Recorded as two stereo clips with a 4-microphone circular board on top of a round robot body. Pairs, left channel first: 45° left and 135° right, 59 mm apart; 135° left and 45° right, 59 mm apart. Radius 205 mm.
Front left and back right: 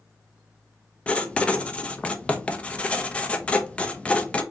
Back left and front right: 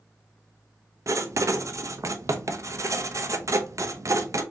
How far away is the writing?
About 0.9 m.